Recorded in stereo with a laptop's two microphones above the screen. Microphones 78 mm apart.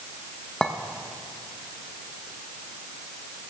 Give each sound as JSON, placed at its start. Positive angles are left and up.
{"t": 0.6, "sound": "a clink", "side_deg": 10, "distance_m": 0.6}